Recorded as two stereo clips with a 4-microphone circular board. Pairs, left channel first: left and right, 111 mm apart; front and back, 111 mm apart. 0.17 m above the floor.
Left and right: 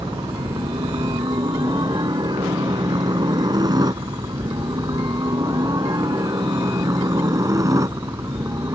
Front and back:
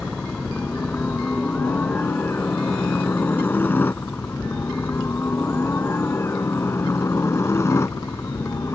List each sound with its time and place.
0.0 s a helicopter: 70° right; by 8.8 s 45° right